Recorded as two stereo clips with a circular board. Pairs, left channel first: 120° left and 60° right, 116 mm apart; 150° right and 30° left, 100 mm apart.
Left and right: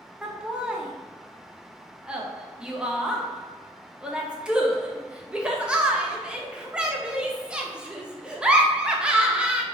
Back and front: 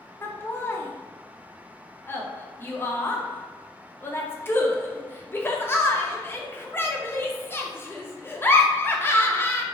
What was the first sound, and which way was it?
Laughter, 130° right.